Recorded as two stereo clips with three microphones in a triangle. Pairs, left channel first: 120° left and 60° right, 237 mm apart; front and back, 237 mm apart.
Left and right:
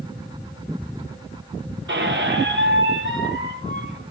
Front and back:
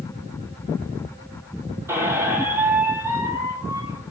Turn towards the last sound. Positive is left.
turn(degrees=-100)